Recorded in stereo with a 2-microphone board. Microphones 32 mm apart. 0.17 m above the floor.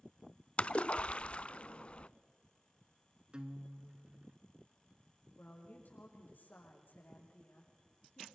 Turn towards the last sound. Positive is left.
turn(degrees=75)  # may be behind; listen again after turning